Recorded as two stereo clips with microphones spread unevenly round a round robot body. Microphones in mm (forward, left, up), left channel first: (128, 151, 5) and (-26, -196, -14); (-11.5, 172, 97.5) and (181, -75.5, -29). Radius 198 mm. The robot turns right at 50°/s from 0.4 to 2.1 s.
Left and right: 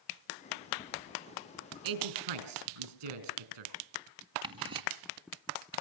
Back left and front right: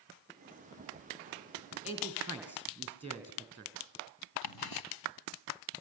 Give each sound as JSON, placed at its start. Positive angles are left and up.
{"t": 1.8, "sound": "a man speaking", "azimuth_deg": -155, "distance_m": 4.0}
{"t": 4.4, "sound": "ticking", "azimuth_deg": 170, "distance_m": 1.7}